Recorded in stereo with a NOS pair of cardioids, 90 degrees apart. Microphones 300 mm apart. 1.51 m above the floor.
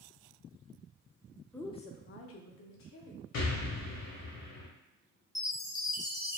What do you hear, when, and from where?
1.5 s a woman speaking: 5° left, 0.6 m; by 3.2 s 75° left, 1.2 m
3.3 s an explosion: 60° left, 1.1 m
5.3 s a chime: 10° left, 0.6 m